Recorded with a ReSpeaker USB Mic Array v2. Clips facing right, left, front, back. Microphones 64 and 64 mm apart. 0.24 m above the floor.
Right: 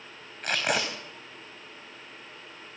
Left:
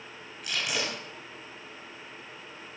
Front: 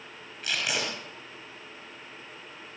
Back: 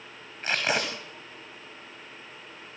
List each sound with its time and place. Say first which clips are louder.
0.4 s tape being pulled: right 5 dB, back 4 dB; 130° right, 6.5 m